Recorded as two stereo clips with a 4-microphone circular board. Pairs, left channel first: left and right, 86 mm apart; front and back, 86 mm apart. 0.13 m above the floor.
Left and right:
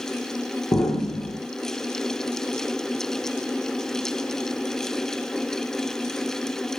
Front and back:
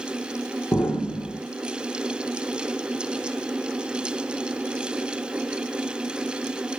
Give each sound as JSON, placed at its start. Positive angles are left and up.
{"t": 0.7, "sound": "an explosion", "azimuth_deg": 50, "distance_m": 3.0}